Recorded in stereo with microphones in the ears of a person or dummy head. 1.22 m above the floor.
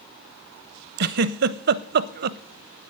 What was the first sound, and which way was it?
A giggle, 55° right (ahead or behind).